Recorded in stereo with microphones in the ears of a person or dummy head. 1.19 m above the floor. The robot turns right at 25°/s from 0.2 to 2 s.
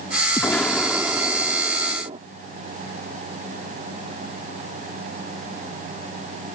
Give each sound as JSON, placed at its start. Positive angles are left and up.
{"t": 0.4, "sound": "an explosion", "azimuth_deg": 170}